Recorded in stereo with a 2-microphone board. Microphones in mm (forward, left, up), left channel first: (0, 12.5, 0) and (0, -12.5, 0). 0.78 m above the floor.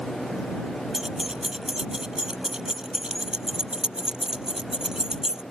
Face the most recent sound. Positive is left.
turn(degrees=-30)  # may be behind; listen again after turning